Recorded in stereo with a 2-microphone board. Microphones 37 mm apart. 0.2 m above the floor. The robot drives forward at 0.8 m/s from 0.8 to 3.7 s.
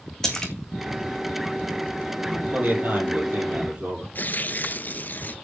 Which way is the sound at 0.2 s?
15° left (ahead or behind).